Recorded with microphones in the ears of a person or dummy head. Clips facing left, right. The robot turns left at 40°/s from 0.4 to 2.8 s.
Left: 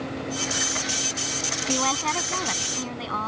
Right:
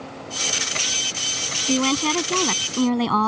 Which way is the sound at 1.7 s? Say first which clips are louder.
Right 7 dB; 35° right.